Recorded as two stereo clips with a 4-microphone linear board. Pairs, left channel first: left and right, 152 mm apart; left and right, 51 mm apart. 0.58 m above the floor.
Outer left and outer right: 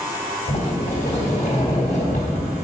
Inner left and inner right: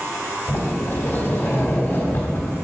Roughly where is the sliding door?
Left.